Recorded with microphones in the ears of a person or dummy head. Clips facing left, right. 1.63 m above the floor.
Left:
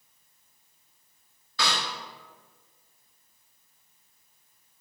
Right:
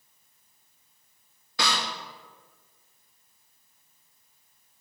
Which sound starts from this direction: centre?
A snare drum, at 1.6 s.